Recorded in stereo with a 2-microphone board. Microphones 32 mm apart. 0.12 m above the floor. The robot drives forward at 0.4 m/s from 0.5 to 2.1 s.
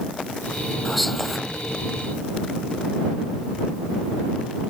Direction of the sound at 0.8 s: 5° left (ahead or behind).